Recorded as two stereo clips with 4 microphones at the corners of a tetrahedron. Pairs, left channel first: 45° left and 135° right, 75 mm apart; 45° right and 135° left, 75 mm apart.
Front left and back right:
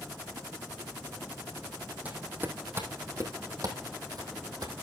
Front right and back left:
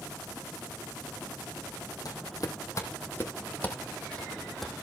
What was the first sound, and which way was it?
Footsteps, 65° right.